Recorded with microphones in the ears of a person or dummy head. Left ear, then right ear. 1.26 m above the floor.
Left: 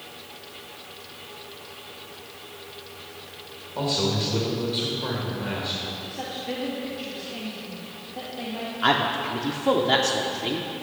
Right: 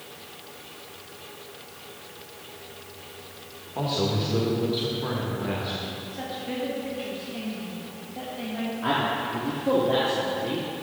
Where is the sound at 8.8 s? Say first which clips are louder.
Left 4 dB; 55° left (ahead or behind), 0.7 m.